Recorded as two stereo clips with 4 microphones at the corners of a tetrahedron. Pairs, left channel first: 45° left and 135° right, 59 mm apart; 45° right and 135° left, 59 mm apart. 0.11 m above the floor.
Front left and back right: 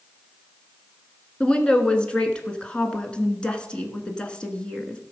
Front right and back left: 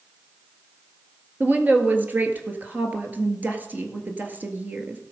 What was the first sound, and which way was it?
A woman speaking, 105° left.